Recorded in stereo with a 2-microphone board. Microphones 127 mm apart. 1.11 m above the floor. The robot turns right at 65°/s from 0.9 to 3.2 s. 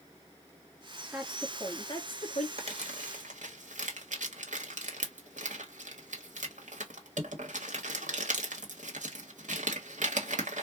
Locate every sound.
1.1 s a woman speaking: 15° right, 1.8 m; by 2.5 s 75° left, 1.8 m
2.6 s crumpling: 50° right (ahead or behind), 1.3 m; by 10.6 s 85° right, 1.3 m